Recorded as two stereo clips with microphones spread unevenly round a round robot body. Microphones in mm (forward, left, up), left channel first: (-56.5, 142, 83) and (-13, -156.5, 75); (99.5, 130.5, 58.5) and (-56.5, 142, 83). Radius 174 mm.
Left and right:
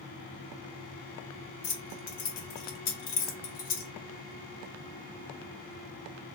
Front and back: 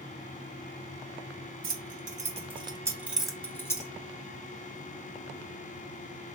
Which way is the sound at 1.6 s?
145° left.